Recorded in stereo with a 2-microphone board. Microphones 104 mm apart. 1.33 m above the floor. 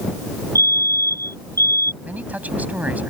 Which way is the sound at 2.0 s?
15° right (ahead or behind).